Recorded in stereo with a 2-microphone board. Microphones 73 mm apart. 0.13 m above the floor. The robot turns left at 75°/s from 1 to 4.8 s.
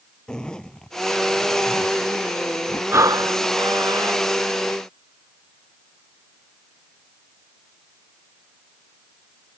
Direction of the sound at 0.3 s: 10° left (ahead or behind).